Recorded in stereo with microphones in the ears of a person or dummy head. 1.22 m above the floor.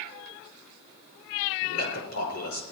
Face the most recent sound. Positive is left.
turn(degrees=85)